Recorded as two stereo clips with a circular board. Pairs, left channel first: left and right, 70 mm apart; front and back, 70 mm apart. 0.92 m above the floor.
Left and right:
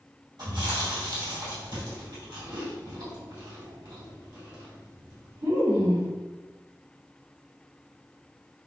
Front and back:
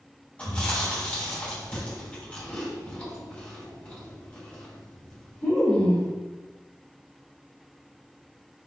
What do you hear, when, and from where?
0.4 s chewing: 70° right, 1.8 m